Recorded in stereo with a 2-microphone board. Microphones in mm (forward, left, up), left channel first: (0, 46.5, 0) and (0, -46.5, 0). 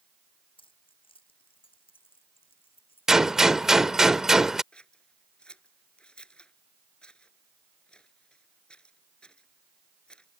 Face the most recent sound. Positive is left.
turn(degrees=10)  # may be behind; listen again after turning